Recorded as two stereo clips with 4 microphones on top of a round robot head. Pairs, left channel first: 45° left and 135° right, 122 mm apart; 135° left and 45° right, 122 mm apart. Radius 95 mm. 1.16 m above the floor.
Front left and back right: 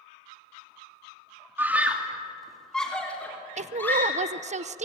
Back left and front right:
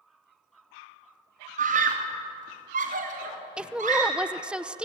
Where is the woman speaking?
125° right, 0.8 m.